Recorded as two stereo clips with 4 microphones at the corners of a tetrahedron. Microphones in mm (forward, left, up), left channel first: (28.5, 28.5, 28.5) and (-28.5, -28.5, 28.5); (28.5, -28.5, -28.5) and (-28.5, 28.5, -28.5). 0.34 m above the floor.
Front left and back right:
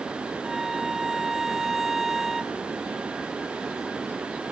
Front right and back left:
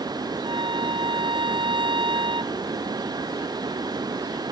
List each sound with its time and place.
0.4 s a violin: 140° left